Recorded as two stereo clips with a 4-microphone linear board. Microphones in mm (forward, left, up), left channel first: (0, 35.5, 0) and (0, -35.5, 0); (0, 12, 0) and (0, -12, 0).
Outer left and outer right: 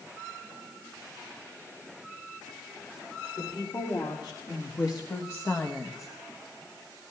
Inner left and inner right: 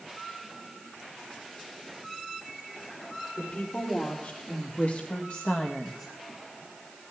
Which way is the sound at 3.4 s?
80° left.